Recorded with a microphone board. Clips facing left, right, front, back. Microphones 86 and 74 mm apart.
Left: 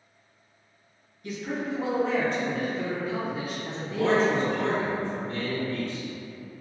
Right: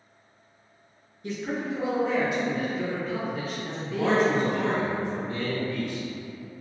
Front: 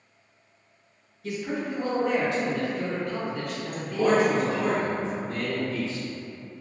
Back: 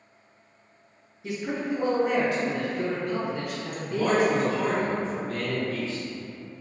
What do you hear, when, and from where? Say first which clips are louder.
1.2 s a man speaking: right 1 dB, back 1 dB; 120° right, 1.7 m; by 4.9 s 90° left, 1.8 m
3.9 s a man speaking: even, front 1 dB; 30° right, 1.8 m